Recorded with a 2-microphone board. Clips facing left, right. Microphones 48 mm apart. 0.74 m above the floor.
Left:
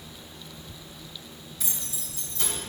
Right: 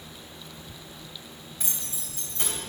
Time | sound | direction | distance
1.6 | keys jangling | 30° right (ahead or behind) | 3 m